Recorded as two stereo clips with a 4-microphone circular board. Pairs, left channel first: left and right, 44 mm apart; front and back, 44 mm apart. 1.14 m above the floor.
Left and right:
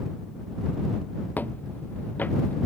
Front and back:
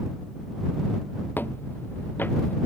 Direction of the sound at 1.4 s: 45° left.